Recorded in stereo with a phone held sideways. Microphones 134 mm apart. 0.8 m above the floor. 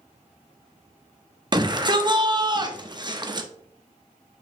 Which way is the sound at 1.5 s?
35° right (ahead or behind).